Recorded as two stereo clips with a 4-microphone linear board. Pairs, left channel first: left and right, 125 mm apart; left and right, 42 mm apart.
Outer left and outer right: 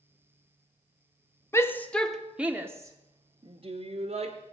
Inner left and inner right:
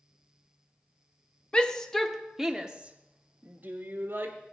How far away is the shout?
About 0.9 m.